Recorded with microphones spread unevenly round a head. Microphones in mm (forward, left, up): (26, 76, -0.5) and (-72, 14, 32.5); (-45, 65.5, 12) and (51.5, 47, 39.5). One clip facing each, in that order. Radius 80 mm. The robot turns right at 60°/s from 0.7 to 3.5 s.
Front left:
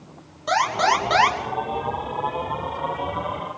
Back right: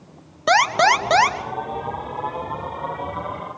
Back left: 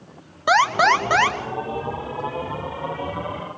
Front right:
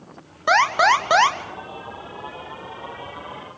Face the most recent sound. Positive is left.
turn(degrees=50)